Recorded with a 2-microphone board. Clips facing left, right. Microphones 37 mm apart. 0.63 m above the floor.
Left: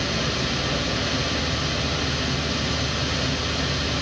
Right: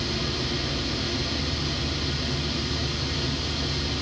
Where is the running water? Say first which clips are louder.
Left 4 dB; 85° left, 1.4 m.